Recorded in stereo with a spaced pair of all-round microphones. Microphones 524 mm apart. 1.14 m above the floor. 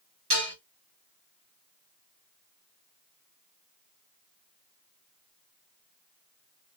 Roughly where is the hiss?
No hiss in this recording.